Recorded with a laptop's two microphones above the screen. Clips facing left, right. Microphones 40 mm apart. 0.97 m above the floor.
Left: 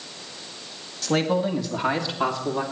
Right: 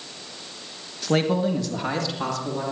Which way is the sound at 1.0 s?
10° right (ahead or behind).